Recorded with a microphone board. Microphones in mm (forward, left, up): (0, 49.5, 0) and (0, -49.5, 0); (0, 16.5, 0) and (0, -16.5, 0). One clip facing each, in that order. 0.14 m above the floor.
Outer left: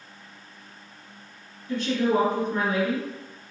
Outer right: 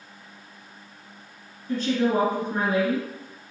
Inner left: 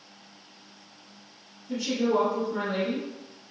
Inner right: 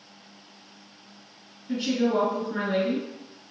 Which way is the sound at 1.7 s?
40° right (ahead or behind).